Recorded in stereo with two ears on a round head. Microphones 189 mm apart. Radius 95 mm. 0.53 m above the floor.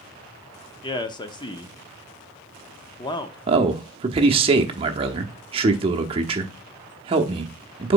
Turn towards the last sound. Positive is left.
turn(degrees=-25)  # may be behind; listen again after turning